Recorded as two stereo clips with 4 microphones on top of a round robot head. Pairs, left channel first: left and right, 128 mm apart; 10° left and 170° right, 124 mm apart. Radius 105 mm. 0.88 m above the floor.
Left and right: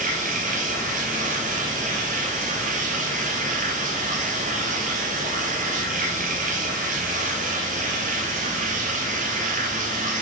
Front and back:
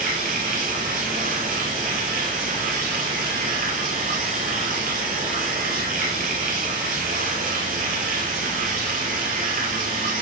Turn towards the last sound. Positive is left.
turn(degrees=-135)